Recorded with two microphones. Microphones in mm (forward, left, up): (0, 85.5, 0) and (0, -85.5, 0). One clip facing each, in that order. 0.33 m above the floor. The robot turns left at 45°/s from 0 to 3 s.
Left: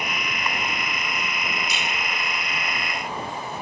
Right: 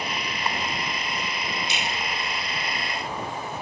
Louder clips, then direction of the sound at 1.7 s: Even; 25° right (ahead or behind).